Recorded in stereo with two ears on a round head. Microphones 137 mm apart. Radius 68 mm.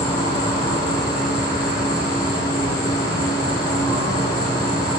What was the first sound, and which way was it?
An insect, 25° left (ahead or behind).